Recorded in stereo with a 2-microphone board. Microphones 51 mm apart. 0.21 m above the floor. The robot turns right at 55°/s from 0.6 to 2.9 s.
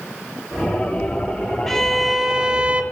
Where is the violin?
170° left, 0.9 m; by 2.8 s 130° right, 0.9 m.